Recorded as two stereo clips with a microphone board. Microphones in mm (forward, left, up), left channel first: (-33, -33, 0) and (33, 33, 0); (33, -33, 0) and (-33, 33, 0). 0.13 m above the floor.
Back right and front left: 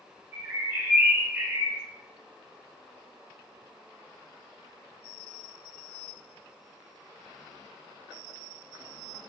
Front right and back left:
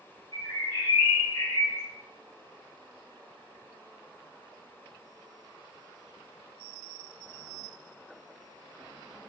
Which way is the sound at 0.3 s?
15° right.